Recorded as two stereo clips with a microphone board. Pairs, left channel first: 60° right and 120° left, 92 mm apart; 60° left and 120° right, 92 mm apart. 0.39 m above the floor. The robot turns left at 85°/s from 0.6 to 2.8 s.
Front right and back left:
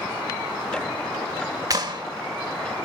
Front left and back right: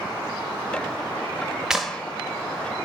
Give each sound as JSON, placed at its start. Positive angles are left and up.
{"t": 1.7, "sound": "a clap", "azimuth_deg": 160, "distance_m": 1.0}